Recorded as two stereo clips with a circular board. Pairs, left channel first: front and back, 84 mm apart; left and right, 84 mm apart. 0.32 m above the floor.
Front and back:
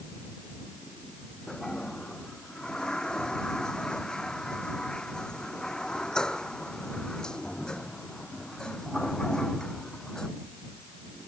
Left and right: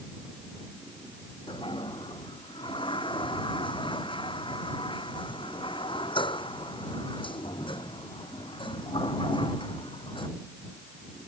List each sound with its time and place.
1.5 s a toilet flushing: 80° left